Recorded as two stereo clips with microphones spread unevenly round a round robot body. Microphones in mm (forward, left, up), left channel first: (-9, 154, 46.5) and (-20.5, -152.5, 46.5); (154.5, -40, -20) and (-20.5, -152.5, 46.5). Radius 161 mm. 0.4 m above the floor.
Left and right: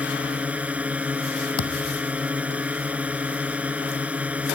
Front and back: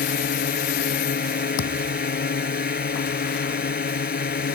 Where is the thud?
40° left.